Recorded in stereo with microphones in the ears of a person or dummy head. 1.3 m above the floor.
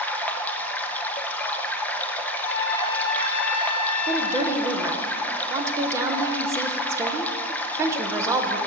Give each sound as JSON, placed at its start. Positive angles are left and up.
{"t": 0.0, "sound": "running water", "side_deg": 10, "distance_m": 0.7}
{"t": 2.3, "sound": "a trumpet", "side_deg": 45, "distance_m": 1.7}
{"t": 4.1, "sound": "a woman speaking", "side_deg": -15, "distance_m": 0.8}